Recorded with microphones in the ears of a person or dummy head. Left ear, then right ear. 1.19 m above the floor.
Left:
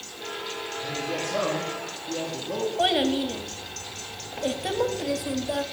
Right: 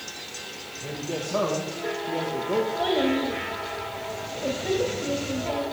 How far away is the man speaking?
About 1.4 m.